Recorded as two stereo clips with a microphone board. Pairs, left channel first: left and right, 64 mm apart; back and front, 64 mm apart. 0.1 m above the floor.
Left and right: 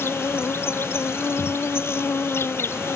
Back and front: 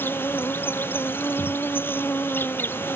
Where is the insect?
130° left.